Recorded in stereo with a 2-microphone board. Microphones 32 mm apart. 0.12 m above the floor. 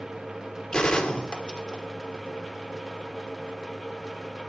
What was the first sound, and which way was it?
A gunshot, 25° left (ahead or behind).